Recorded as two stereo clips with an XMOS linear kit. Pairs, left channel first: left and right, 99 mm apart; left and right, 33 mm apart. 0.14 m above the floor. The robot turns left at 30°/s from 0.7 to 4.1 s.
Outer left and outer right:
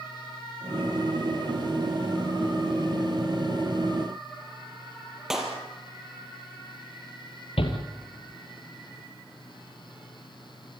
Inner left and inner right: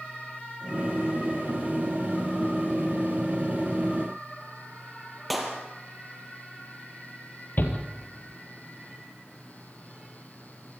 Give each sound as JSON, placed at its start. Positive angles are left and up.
{"t": 5.3, "sound": "a clap", "side_deg": -5, "distance_m": 4.0}
{"t": 7.6, "sound": "a shout", "side_deg": 70, "distance_m": 4.0}